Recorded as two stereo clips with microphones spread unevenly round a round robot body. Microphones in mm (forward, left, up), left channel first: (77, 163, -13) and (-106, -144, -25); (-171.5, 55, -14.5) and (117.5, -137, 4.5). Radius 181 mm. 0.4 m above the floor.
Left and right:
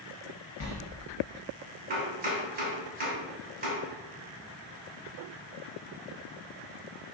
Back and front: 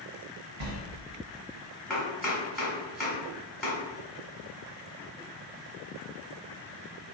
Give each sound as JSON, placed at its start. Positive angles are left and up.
{"t": 0.6, "sound": "a sliding door", "azimuth_deg": 0, "distance_m": 0.7}
{"t": 1.9, "sound": "chopping", "azimuth_deg": -135, "distance_m": 1.2}